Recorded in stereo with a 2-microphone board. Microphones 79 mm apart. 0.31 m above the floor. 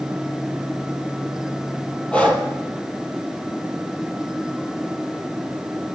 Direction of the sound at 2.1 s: 15° left (ahead or behind).